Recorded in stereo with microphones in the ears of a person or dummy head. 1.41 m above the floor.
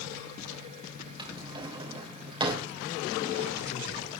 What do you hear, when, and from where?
1.2 s a drawer: 25° right (ahead or behind), 3 m